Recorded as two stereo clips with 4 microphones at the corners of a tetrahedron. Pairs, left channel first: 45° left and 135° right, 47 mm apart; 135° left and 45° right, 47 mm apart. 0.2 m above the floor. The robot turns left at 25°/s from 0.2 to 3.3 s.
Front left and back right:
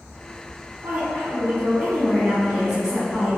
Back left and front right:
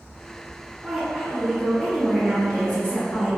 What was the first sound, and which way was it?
A woman speaking, 150° right.